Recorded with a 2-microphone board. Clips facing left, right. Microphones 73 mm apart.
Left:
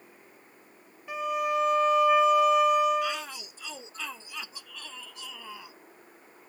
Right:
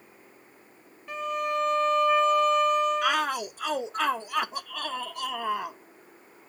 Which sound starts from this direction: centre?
A violin, at 1.1 s.